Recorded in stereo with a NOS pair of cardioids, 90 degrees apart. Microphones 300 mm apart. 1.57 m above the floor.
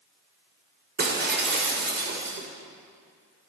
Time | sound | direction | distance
1.0 | breaking glass | 40° right | 3 m